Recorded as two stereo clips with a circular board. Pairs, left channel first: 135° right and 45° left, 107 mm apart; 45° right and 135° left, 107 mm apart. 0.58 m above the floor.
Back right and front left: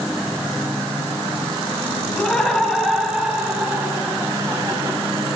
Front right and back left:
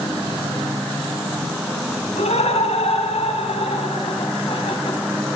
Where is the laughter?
50° right, 5 m; by 5.0 s 10° right, 5 m.